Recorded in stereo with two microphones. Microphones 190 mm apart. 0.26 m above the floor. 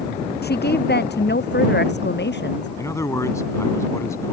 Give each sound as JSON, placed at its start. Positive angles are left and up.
{"t": 0.4, "sound": "a woman speaking", "side_deg": 60}
{"t": 2.8, "sound": "a man speaking", "side_deg": 15}